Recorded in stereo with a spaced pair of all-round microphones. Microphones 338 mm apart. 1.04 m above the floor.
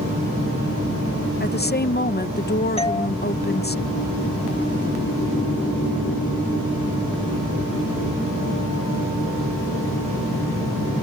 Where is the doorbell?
15° left (ahead or behind).